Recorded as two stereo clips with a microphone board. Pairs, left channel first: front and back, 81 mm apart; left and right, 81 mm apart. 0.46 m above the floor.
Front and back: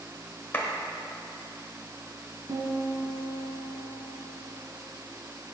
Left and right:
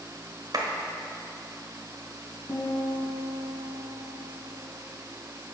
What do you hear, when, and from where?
0.5 s a clap: 65° right, 1.2 m
2.5 s a piano: 150° left, 2 m